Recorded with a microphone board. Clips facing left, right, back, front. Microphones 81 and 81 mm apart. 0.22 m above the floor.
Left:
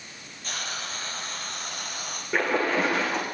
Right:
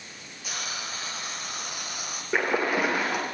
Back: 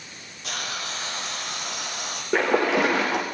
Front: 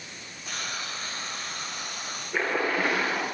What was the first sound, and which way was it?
A hiss, 170° right.